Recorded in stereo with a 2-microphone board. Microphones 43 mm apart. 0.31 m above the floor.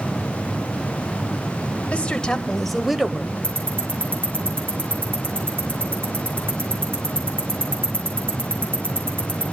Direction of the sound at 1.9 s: 30° left (ahead or behind).